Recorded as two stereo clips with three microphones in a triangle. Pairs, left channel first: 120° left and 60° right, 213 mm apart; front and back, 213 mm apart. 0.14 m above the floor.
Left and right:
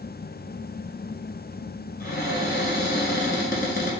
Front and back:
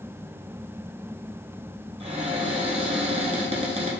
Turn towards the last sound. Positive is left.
turn(degrees=135)